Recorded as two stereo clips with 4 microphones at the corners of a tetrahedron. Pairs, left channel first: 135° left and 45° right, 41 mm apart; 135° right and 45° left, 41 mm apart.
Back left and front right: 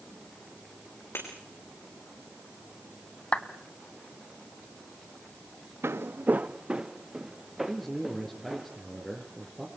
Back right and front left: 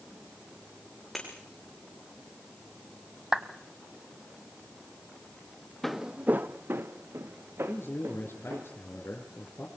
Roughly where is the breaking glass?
Behind left.